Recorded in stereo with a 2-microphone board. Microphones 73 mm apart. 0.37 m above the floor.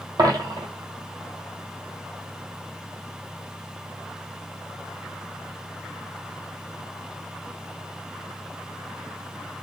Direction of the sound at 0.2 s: 65° right (ahead or behind).